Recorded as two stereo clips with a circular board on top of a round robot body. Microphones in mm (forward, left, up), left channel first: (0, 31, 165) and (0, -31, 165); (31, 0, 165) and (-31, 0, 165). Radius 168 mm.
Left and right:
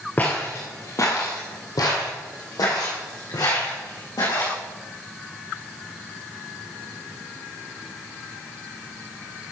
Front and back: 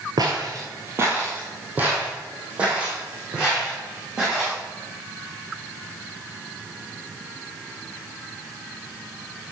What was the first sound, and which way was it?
Footsteps, 155° left.